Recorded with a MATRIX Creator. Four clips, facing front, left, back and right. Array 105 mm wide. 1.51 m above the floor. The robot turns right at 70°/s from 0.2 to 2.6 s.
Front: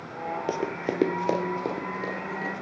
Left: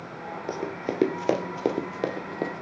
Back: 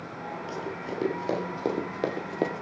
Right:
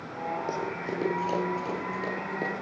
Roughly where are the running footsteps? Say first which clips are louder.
Left 1 dB, front 7 dB; ahead.